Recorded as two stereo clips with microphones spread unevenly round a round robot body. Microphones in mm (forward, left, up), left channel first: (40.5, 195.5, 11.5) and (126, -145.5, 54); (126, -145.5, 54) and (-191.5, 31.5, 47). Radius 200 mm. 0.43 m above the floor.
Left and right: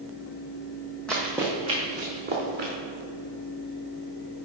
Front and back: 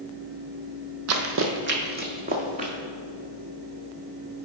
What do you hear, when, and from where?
1.1 s running footsteps: 165° right, 0.8 m; by 2.7 s 140° right, 1.6 m